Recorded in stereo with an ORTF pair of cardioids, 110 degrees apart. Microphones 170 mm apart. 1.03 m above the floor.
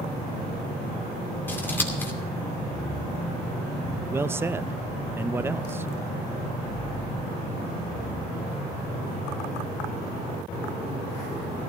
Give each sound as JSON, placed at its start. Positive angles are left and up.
{"t": 1.5, "sound": "scissors", "azimuth_deg": 10, "distance_m": 2.5}
{"t": 4.1, "sound": "a man speaking", "azimuth_deg": -15, "distance_m": 0.5}